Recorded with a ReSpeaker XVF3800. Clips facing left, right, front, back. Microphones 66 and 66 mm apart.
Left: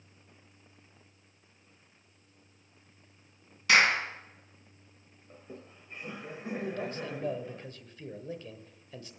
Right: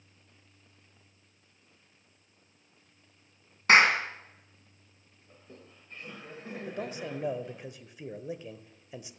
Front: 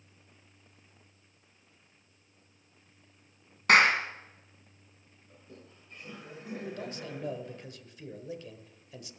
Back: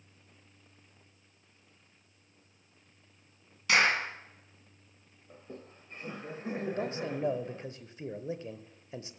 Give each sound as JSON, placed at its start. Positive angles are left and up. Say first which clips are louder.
{"t": 3.7, "sound": "a clap", "louder": "right 3 dB, front 4 dB", "azimuth_deg": -40, "distance_m": 3.0}
{"t": 5.3, "sound": "laughter", "louder": "left 5 dB, back 6 dB", "azimuth_deg": 155, "distance_m": 1.1}
{"t": 6.7, "sound": "a man speaking", "louder": "left 1 dB, back 8 dB", "azimuth_deg": -150, "distance_m": 1.0}